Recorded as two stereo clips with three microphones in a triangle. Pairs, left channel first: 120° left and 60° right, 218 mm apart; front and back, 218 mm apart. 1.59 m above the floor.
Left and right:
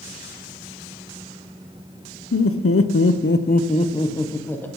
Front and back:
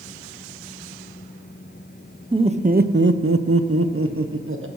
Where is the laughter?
110° left, 1.0 m; by 4.7 s 155° right, 1.5 m.